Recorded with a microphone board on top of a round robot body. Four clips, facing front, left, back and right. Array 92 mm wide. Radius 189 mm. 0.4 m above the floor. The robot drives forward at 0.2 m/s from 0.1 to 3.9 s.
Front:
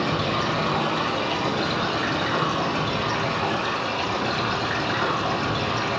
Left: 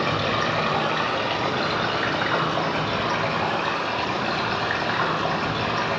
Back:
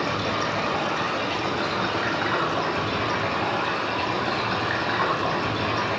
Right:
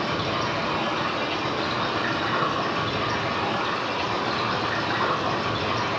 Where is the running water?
110° left, 1.8 m; by 6.0 s 130° left, 2 m.